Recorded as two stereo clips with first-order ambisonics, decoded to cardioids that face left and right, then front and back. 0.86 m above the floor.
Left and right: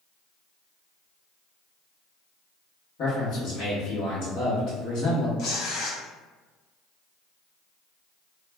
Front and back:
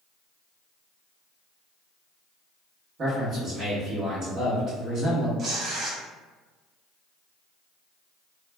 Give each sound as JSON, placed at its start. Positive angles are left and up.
{"t": 3.0, "sound": "a man speaking", "azimuth_deg": 120, "distance_m": 1.2}
{"t": 5.4, "sound": "tearing paper", "azimuth_deg": 125, "distance_m": 0.6}